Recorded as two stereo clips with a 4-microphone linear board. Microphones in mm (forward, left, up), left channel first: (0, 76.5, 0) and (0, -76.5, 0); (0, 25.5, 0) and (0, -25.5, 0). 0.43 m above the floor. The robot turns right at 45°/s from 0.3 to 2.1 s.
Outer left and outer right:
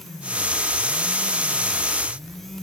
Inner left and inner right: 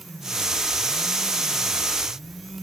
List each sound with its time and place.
Only background noise.